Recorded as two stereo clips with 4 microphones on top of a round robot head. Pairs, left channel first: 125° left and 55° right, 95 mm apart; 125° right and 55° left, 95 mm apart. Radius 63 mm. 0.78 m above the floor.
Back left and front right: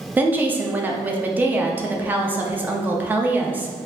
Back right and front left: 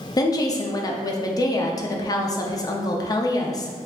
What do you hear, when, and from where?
0.2 s a woman speaking: 115° right, 0.6 m